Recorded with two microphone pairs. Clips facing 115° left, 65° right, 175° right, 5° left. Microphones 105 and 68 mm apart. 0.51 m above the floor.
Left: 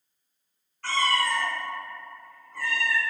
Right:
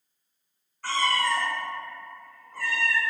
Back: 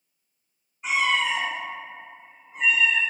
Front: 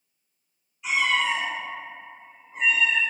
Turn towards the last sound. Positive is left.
turn(degrees=-25)